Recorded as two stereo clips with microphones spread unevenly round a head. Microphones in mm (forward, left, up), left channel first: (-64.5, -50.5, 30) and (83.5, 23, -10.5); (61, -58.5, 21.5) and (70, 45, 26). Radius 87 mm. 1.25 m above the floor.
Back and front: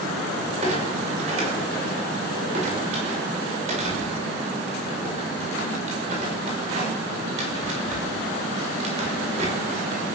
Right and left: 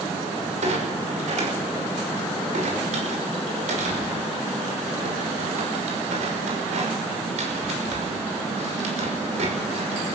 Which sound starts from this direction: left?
A clunk, at 0.6 s.